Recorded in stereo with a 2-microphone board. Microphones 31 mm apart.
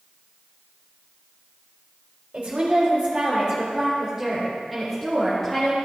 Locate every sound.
2.3 s a woman speaking: 55° right (ahead or behind), 3.5 m; by 5.8 s 10° left (ahead or behind), 3.5 m